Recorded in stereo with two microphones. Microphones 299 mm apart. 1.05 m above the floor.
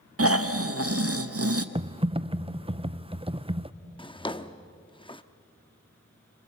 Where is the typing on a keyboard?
20° right (ahead or behind), 0.6 m.